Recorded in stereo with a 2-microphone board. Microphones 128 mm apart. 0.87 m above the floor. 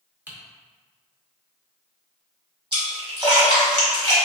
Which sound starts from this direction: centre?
Typing on a keyboard, at 0.3 s.